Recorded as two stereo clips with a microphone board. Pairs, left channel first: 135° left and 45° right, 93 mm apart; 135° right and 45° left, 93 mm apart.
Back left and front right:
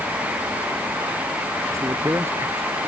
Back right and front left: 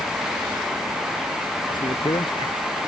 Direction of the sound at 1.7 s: 100° right.